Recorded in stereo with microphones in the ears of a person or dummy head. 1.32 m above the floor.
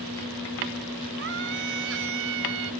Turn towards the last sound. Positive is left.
turn(degrees=-80)